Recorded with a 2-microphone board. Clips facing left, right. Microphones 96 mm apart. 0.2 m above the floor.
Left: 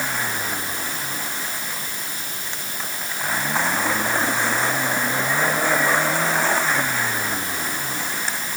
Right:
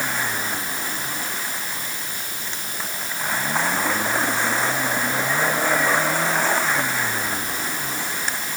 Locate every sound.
Only background noise.